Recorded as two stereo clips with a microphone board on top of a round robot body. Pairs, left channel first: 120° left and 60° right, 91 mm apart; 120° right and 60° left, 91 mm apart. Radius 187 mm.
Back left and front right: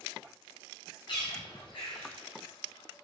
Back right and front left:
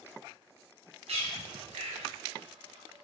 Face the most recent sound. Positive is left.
turn(degrees=80)